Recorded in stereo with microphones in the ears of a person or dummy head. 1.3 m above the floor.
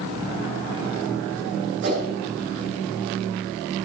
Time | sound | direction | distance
1.8 | a whoosh | 55° right (ahead or behind) | 3.5 m